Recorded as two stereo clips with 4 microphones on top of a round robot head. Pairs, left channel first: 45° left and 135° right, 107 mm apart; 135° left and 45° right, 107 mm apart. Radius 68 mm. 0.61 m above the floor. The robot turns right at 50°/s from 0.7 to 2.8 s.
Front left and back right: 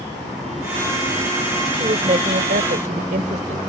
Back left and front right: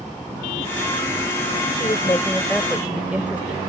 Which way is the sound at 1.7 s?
Straight behind.